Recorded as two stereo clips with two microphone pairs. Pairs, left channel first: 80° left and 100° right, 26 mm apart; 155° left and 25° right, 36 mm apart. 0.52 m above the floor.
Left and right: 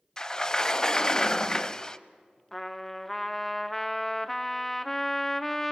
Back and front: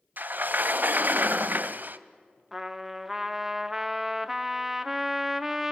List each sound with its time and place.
0.2 s a sliding door: 10° left, 0.6 m
2.5 s a trumpet: 45° left, 0.8 m